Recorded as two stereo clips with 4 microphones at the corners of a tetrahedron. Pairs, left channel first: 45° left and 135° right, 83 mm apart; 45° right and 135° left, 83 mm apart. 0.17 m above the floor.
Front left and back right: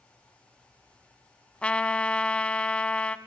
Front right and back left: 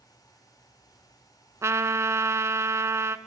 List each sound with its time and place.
1.6 s a trumpet: 110° left, 0.5 m